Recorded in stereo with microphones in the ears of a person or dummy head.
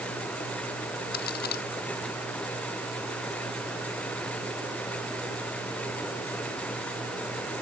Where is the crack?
55° left (ahead or behind).